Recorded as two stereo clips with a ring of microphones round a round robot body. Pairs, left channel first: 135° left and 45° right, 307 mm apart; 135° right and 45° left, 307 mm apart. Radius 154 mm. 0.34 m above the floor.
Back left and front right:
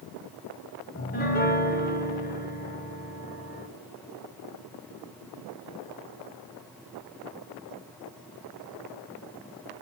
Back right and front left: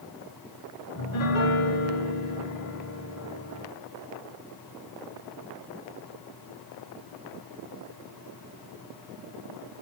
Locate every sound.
0.9 s a piano: 165° right, 1.3 m